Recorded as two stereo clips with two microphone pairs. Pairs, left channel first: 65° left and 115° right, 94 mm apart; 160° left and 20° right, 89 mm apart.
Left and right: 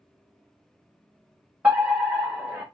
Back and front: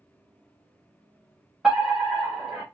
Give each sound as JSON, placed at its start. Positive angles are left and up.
{"t": 1.6, "sound": "a fire alarm", "azimuth_deg": -85, "distance_m": 1.4}